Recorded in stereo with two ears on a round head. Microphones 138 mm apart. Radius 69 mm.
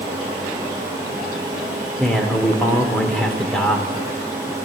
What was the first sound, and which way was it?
A man speaking, 5° left (ahead or behind).